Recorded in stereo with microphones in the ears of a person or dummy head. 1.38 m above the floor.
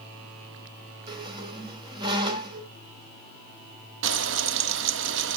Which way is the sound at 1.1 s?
25° right (ahead or behind).